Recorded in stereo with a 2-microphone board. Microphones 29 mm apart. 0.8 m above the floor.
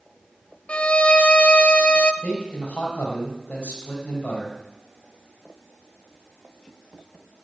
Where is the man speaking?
50° left (ahead or behind), 4.5 m.